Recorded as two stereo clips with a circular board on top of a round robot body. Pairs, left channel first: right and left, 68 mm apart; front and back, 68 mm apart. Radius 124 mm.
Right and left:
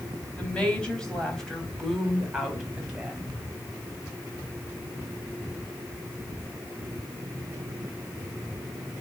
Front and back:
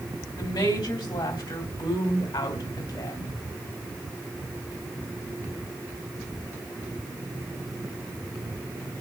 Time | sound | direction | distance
0.4 | a woman speaking | 15° right | 3.5 m